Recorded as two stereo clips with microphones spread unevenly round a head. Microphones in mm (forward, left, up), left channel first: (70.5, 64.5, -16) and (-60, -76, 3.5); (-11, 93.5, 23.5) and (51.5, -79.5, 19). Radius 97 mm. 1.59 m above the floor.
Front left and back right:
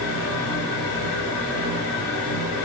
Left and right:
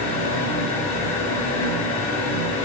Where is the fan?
50° left, 2 m.